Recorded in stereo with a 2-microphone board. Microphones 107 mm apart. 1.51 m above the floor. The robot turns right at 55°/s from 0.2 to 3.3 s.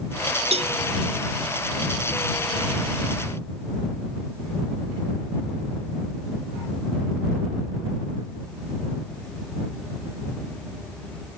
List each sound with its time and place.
0.5 s a cowbell: 70° right (ahead or behind); by 0.8 s 75° right (ahead or behind)